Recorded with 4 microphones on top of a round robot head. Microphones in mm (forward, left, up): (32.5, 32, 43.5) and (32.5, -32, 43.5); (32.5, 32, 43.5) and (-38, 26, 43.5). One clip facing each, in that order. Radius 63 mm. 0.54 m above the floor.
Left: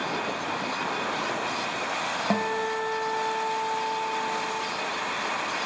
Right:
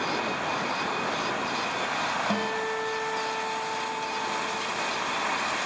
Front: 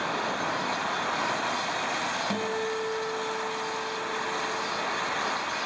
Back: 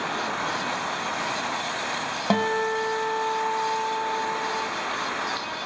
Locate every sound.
2.3 s a guitar: 155° left, 1.5 m